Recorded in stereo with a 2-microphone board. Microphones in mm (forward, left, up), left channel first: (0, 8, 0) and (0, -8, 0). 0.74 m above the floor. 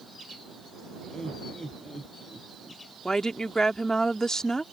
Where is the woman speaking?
35° left (ahead or behind).